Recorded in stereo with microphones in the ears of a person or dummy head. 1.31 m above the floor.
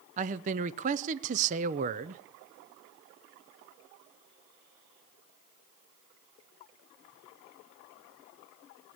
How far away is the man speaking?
About 0.5 m.